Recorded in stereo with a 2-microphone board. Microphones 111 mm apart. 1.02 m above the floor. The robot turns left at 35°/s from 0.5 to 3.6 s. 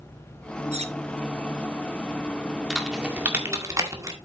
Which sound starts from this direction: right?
Cutlery clinking, at 0.7 s.